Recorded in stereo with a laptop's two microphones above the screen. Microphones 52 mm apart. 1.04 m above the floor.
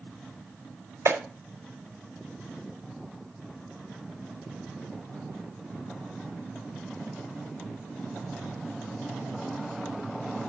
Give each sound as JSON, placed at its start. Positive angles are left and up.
{"t": 1.1, "sound": "a clap", "side_deg": -70, "distance_m": 3.0}